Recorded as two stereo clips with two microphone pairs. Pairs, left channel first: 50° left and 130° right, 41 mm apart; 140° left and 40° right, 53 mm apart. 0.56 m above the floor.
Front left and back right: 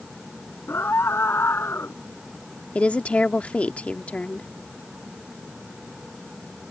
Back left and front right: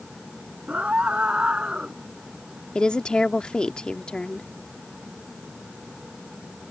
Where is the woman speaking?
80° left.